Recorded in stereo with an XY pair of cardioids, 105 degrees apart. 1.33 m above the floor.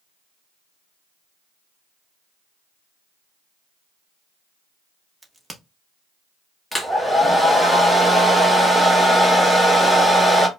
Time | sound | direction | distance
5.2 | a crack | 10° right | 1.1 m
6.7 | a hair dryer | 5° left | 1.3 m